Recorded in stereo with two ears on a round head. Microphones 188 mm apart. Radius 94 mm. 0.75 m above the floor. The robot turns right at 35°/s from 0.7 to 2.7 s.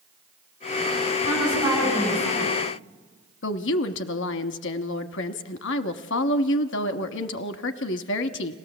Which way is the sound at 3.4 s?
60° left (ahead or behind).